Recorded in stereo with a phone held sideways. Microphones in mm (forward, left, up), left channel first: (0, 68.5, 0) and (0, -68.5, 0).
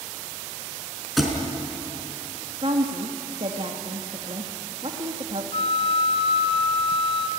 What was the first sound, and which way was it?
A thud, centre (ahead or behind).